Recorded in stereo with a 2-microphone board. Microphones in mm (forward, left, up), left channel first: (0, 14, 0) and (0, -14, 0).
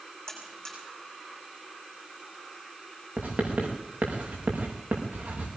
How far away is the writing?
About 7 m.